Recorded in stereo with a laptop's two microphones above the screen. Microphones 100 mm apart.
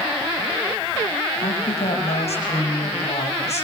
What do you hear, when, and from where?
1.4 s a woman speaking: 85° left, 6.5 m